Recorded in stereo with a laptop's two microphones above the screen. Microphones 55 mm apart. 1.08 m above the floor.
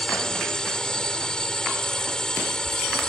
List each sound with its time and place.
0.0 s a drone: 15° left (ahead or behind)